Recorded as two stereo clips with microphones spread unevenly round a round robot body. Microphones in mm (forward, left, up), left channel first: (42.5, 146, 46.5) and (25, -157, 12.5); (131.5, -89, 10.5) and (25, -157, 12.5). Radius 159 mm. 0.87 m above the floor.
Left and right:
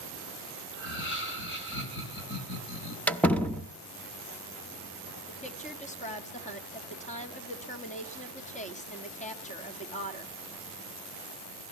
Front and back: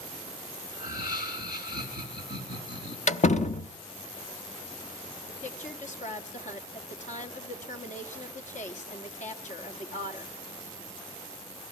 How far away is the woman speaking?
About 1.9 m.